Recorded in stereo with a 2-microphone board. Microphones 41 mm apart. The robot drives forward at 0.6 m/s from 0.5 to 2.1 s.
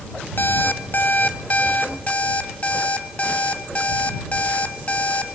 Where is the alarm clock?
50° left (ahead or behind), 1.3 m; by 5.3 s 35° left (ahead or behind), 1.9 m.